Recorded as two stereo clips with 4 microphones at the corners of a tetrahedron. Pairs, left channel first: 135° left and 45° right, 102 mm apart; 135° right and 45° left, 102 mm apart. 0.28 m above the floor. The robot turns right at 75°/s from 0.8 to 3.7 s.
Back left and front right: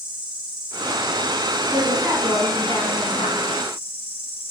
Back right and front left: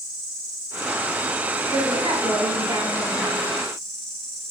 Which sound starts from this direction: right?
An insect, at 0.0 s.